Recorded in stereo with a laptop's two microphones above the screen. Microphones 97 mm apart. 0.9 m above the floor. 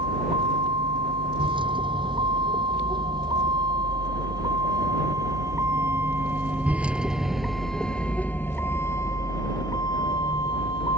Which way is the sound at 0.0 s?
65° right (ahead or behind).